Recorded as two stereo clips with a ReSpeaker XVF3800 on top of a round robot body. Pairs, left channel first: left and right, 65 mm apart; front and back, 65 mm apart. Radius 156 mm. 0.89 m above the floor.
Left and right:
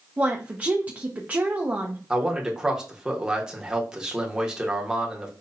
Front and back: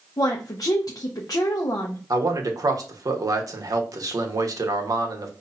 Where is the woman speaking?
25° right, 0.8 m.